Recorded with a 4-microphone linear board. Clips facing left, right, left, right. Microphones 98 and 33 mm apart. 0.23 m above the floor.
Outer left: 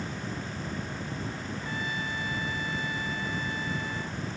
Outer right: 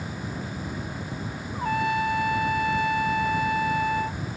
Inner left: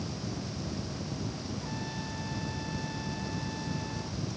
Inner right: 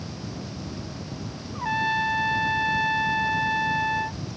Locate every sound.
1.6 s a trumpet: 65° right (ahead or behind)